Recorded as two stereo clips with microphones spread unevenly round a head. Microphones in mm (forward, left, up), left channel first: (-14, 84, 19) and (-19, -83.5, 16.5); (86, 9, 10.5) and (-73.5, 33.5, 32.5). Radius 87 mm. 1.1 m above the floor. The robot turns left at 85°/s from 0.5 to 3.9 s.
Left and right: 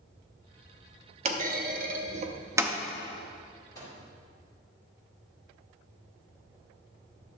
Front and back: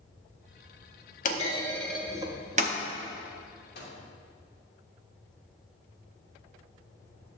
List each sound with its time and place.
1.2 s a clunk: 50° right, 0.6 m; by 2.8 s 175° right, 0.6 m
3.8 s a microwave: 20° left, 2.5 m; by 4.0 s 5° left, 2.5 m